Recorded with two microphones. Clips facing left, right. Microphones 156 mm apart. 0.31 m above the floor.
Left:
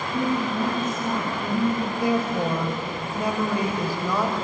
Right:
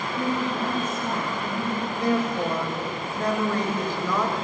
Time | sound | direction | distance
0.1 | a woman speaking | 60° left (ahead or behind) | 3 m
1.9 | a woman speaking | 10° left (ahead or behind) | 1.1 m